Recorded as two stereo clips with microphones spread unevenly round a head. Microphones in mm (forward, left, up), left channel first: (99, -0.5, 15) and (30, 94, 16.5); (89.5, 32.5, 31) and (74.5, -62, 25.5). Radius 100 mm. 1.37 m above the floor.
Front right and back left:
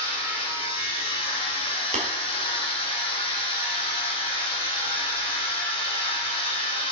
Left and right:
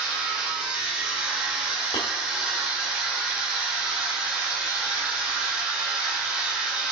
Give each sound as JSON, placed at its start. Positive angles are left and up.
{"t": 0.0, "sound": "a machine running", "azimuth_deg": -20, "distance_m": 2.5}
{"t": 1.9, "sound": "tapping", "azimuth_deg": 135, "distance_m": 1.8}